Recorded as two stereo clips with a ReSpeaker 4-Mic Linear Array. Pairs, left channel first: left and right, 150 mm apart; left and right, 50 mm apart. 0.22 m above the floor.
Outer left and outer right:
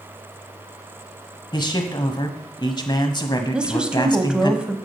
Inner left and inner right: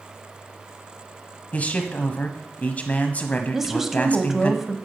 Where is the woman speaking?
5° right (ahead or behind), 1.0 m.